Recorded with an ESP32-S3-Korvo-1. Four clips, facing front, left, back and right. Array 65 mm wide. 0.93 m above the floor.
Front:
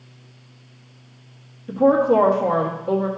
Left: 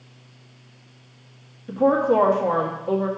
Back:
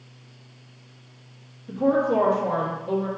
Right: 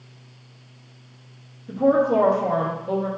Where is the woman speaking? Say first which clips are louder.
Even, front 5 dB; 40° left, 1.6 m.